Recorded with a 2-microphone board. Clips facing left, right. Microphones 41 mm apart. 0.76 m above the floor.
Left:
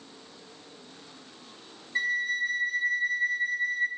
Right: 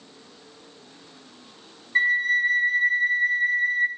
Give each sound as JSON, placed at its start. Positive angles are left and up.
{"t": 1.9, "sound": "a flute", "side_deg": -35, "distance_m": 1.0}